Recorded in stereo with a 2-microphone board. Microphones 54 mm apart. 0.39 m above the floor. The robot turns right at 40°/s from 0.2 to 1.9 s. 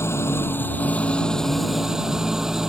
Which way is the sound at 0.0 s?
125° left.